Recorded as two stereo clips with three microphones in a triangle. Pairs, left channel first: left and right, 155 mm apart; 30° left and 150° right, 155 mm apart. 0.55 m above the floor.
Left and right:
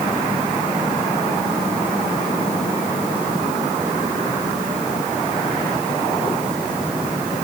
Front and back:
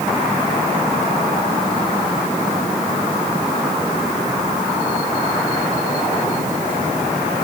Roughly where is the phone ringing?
I don't hear a phone ringing.